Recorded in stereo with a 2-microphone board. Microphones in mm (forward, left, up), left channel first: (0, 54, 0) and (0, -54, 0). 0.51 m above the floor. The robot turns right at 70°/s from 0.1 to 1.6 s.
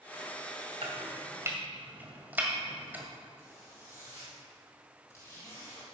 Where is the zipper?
25° left (ahead or behind), 4 m.